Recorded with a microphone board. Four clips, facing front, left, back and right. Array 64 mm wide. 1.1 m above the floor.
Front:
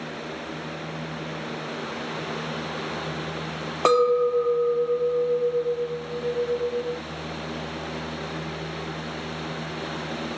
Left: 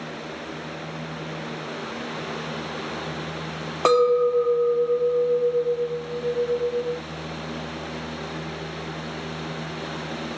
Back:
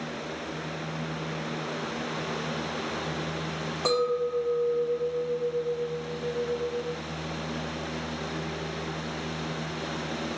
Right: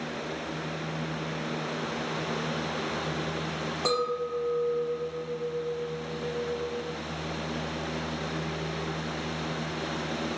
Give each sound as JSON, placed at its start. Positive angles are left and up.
{"t": 3.9, "sound": "a clink", "azimuth_deg": 45, "distance_m": 0.6}